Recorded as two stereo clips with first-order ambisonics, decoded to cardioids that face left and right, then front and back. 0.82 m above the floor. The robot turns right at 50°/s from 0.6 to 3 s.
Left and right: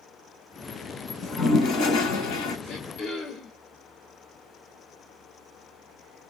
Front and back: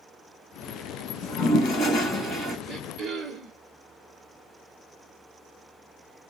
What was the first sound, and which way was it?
A toilet flushing, 30° left.